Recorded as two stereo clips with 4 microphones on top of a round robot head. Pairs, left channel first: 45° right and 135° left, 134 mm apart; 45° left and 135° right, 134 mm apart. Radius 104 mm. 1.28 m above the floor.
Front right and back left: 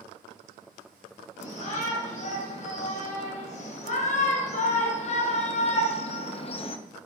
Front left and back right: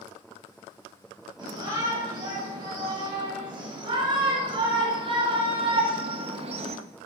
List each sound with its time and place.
1.4 s a shout: 75° right, 8 m; by 6.8 s 95° right, 1.5 m